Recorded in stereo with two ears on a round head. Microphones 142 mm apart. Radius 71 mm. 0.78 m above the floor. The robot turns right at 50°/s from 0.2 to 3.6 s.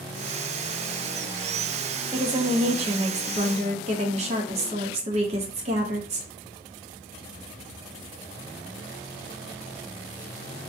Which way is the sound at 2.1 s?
145° right.